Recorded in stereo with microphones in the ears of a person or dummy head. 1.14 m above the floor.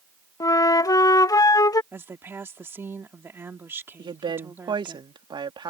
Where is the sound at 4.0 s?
20° right (ahead or behind).